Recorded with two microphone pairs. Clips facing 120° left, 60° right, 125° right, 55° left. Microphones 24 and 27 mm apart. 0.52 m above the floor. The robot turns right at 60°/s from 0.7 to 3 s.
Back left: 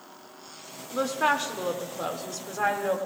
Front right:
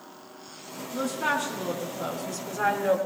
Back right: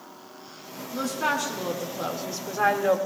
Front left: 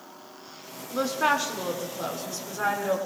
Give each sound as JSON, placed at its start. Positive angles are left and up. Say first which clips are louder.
{"t": 0.9, "sound": "a woman speaking", "louder": "back left 2 dB, front left 2 dB", "azimuth_deg": 95, "distance_m": 1.4}